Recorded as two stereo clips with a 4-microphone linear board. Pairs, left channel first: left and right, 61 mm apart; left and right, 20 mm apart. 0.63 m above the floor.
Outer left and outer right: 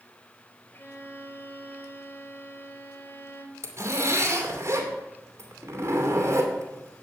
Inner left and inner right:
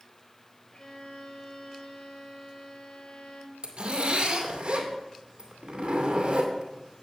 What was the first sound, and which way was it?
A violin, 35° left (ahead or behind).